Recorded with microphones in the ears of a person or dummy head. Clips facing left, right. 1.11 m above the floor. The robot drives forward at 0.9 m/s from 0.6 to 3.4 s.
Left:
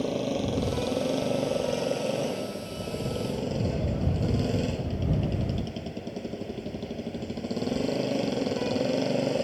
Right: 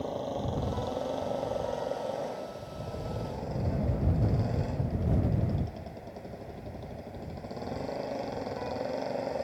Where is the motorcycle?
45° left (ahead or behind); by 9.4 s 50° left (ahead or behind).